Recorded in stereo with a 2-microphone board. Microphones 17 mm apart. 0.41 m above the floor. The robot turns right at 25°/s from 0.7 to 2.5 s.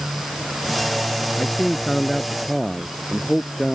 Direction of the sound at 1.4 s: 35° left (ahead or behind).